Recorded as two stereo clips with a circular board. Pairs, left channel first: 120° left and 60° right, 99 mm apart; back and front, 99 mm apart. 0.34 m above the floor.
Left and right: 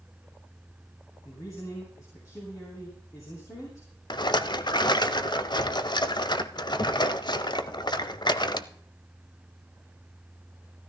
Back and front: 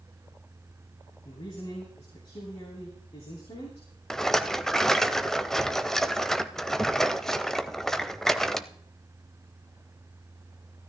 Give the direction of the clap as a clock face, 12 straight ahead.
No clap in this recording.